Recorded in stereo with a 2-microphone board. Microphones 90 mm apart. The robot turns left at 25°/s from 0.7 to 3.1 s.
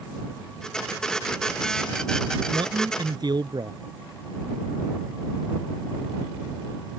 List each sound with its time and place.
2.5 s a man speaking: 65° right (ahead or behind); by 3.8 s 50° right (ahead or behind)